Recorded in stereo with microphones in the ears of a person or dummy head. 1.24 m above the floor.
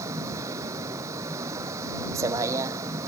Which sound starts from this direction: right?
A vehicle, at 0.0 s.